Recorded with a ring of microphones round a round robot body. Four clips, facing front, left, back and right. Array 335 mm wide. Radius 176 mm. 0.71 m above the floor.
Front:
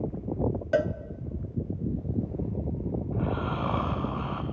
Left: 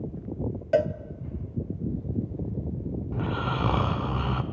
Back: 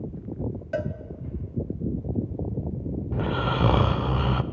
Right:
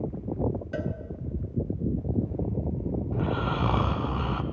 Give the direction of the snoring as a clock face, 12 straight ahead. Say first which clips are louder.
Even, back 6 dB; 6 o'clock.